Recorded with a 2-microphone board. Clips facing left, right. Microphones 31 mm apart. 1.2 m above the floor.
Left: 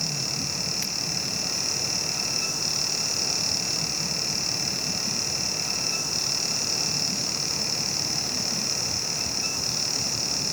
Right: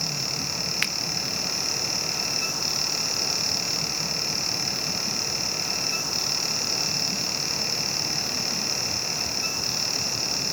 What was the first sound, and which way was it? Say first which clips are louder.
A finger snap: right 6 dB; 50° right (ahead or behind).